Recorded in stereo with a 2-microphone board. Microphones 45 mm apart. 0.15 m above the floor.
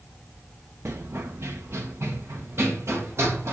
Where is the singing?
I don't hear singing.